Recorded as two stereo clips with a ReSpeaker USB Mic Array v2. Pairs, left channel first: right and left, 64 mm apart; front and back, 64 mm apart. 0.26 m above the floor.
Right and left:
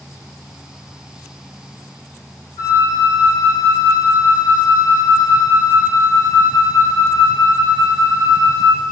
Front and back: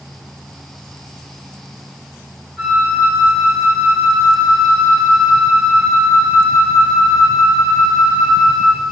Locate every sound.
2.6 s a flute: 90° right, 1.2 m